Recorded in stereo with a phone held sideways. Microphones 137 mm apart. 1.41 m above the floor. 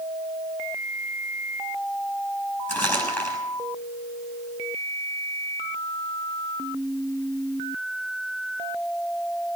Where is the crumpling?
15° left (ahead or behind), 7 m.